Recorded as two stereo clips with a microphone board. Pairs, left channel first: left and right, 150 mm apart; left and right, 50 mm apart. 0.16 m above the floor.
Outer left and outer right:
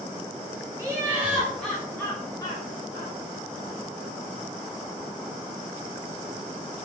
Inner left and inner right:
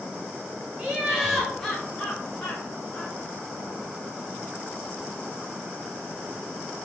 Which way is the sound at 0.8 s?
20° right (ahead or behind).